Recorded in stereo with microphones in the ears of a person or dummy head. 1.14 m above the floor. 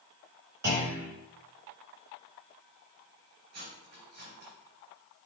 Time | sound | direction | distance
0.6 | a clunk | 20° right (ahead or behind) | 3.5 m
3.5 | cutlery clinking | 55° right (ahead or behind) | 2.5 m